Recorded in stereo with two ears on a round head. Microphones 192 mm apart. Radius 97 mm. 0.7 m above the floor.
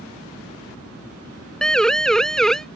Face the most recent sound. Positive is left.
turn(degrees=5)  # may be behind; listen again after turning